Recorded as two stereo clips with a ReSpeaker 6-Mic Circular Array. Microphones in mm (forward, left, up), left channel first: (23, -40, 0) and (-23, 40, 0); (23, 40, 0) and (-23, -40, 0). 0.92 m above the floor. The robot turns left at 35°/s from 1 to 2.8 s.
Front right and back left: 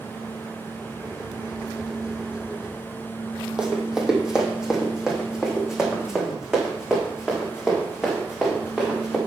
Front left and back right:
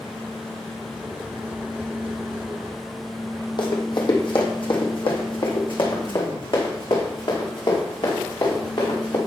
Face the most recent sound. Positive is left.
turn(degrees=35)